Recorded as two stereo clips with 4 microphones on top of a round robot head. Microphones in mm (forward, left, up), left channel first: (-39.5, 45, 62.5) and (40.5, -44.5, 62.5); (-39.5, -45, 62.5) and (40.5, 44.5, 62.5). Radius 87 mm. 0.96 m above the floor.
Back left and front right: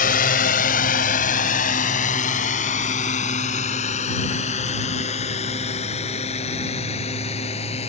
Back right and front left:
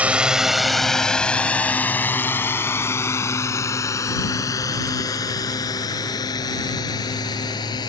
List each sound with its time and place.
0.0 s a drone: 130° left; by 7.9 s 170° left